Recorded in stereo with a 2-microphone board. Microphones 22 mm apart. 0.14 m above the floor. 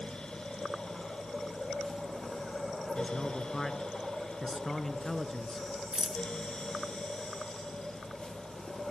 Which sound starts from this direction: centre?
A man speaking, at 3.0 s.